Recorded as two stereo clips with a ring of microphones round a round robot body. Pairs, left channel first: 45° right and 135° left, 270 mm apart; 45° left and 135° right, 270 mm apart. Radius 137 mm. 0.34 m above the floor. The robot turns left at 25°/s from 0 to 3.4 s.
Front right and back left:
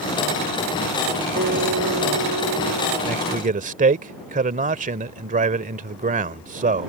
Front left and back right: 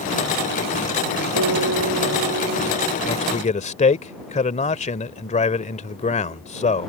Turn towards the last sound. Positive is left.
turn(degrees=95)